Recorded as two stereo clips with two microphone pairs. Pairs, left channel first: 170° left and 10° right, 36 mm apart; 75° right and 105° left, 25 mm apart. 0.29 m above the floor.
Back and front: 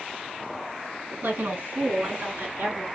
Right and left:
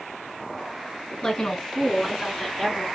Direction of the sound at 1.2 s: 15° right.